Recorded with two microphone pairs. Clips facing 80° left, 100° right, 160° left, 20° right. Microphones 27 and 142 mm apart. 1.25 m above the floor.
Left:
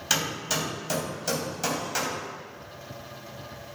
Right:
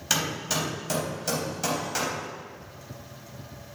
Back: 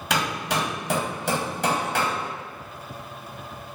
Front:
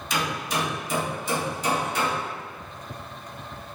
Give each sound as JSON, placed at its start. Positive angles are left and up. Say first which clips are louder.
{"t": 0.1, "sound": "hammering", "louder": "even, back 2 dB", "azimuth_deg": 170, "distance_m": 4.0}